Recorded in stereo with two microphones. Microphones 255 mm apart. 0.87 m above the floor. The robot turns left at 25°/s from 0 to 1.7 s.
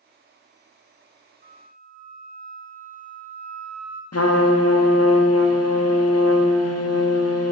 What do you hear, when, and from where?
1.4 s a flute: 30° right (ahead or behind), 0.5 m; by 4.0 s 35° right (ahead or behind), 0.5 m
4.1 s a trumpet: 75° left (ahead or behind), 0.5 m